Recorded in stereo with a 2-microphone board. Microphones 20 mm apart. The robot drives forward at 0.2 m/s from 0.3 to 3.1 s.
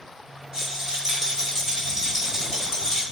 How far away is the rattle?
About 1.1 m.